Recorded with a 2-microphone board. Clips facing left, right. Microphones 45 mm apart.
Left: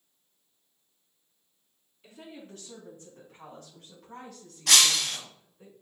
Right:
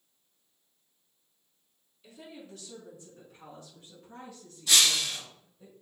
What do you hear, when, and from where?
2.0 s a woman speaking: 40° left (ahead or behind), 4.5 m; by 5.7 s 70° left (ahead or behind), 5.5 m
4.7 s breaking glass: 85° left, 1.4 m